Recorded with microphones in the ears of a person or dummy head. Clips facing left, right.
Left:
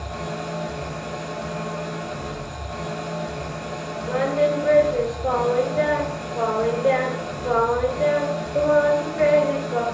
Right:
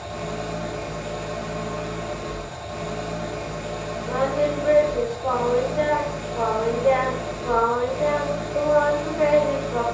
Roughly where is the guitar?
No guitar in this recording.